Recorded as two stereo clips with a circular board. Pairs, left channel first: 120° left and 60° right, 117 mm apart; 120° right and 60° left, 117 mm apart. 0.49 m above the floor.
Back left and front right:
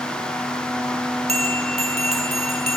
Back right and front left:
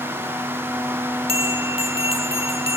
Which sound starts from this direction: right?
A bell, at 1.3 s.